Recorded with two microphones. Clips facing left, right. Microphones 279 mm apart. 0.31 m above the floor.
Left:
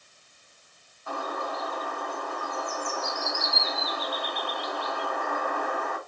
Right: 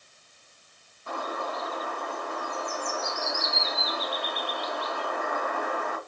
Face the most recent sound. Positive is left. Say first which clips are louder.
# even
turn(degrees=-35)  # may be behind; listen again after turning